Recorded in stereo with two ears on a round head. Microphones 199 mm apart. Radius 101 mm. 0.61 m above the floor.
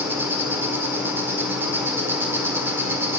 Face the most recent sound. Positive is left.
turn(degrees=-10)  # may be behind; listen again after turning